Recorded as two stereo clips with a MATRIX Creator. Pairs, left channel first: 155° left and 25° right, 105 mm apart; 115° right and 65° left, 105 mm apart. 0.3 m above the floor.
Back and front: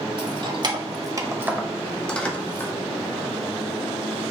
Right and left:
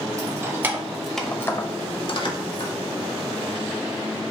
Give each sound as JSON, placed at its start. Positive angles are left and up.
{"t": 0.2, "sound": "keys jangling", "azimuth_deg": 10, "distance_m": 1.0}